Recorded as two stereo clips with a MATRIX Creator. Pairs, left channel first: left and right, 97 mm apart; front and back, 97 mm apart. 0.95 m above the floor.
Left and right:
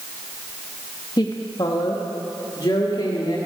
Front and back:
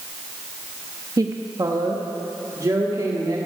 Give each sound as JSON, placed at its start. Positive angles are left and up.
{"t": 1.2, "sound": "a woman speaking", "azimuth_deg": 130, "distance_m": 0.9}